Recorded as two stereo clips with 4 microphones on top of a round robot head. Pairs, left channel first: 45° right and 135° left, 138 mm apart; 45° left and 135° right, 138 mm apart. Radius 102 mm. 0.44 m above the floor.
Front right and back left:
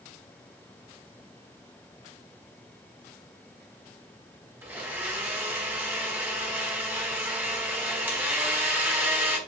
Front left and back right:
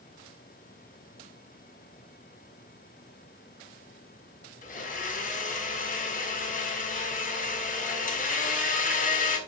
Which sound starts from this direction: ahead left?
A blender, at 4.6 s.